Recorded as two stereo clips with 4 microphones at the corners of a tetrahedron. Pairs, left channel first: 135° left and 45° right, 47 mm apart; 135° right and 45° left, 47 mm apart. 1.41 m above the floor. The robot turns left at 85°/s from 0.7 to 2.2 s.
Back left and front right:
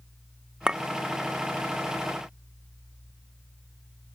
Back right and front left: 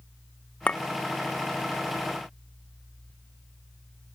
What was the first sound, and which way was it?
A clink, 100° right.